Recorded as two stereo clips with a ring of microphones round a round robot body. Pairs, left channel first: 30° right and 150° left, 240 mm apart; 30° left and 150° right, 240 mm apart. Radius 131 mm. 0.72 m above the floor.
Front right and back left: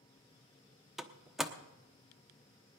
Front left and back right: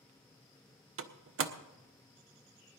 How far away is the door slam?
About 1.0 m.